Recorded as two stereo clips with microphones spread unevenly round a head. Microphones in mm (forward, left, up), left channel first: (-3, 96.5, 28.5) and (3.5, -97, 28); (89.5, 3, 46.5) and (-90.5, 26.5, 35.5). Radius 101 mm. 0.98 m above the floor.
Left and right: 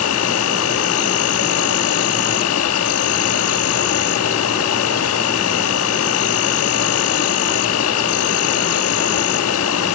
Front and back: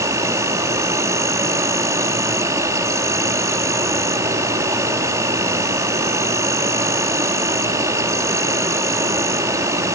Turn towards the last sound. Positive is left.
turn(degrees=100)